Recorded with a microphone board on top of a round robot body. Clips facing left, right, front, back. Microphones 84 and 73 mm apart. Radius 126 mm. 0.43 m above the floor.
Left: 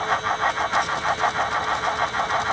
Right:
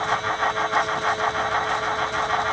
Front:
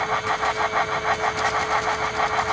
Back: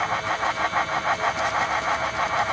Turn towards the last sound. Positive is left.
No sound to turn to.